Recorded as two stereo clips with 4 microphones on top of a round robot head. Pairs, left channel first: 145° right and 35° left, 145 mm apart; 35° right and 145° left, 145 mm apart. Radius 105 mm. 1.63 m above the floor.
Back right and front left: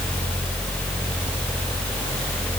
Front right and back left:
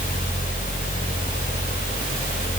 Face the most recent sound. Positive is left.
No sound to turn to.